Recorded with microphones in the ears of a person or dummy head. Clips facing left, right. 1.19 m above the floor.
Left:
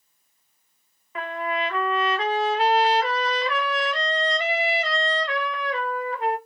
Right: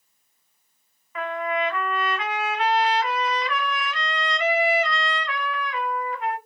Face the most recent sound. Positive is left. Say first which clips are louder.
# right 2 dB
turn(degrees=25)  # may be behind; listen again after turning